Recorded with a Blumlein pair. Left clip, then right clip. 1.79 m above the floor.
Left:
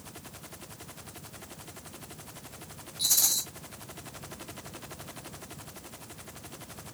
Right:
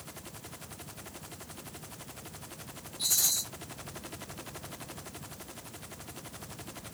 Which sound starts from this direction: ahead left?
A rattle, at 3.0 s.